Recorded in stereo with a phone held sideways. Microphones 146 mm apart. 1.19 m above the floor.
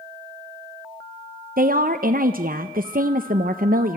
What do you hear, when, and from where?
1.6 s a woman speaking: 80° right, 0.6 m